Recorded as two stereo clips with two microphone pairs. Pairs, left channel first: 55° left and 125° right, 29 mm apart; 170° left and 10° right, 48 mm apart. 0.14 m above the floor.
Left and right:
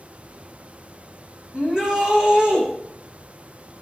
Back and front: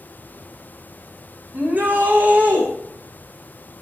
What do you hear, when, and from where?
1.5 s a shout: 55° right, 8.5 m